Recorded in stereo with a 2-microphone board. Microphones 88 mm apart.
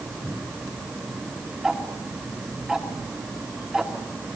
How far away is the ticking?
About 2 m.